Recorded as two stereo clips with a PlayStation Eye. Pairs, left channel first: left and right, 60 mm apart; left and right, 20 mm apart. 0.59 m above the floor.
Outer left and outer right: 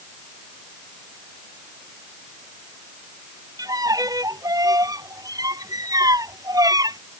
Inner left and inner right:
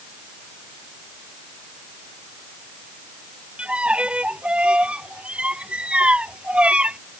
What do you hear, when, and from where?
3.6 s a violin: 80° right